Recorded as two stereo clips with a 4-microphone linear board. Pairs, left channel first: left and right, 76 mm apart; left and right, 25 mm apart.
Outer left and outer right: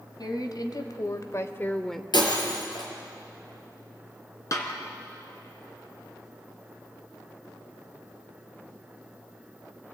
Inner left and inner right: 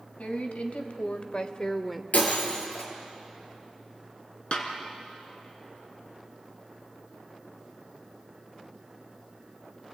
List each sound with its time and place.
0.2 s a woman speaking: 70° left (ahead or behind), 2.5 m; by 2.0 s centre (ahead or behind), 1.0 m
2.1 s breaking glass: 85° left, 4 m
4.5 s a snare drum: 50° left (ahead or behind), 2.5 m